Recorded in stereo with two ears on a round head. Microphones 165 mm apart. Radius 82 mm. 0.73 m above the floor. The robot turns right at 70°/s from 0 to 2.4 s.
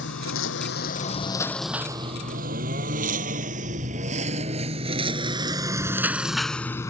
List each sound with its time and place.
0.0 s a lawn mower: 70° left (ahead or behind); by 6.9 s 20° left (ahead or behind)